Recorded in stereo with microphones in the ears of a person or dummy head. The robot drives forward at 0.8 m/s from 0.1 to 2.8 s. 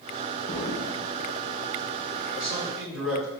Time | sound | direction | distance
0.5 | an explosion | 20° left (ahead or behind) | 1.0 m
2.4 | a man speaking | centre (ahead or behind) | 2.5 m